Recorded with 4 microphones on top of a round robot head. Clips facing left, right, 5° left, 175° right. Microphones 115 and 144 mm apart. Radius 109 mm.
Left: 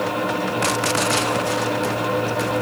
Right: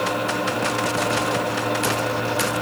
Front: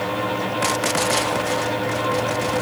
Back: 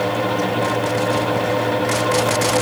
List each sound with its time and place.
Only background noise.